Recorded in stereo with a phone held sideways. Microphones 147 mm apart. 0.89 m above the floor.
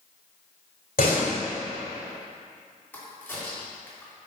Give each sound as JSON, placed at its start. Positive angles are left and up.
{"t": 1.0, "sound": "a door slam", "side_deg": 80, "distance_m": 2.0}
{"t": 2.9, "sound": "a crack", "side_deg": 10, "distance_m": 3.0}